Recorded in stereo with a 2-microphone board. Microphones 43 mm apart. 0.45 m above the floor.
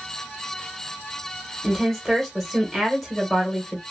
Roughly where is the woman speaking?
Centre.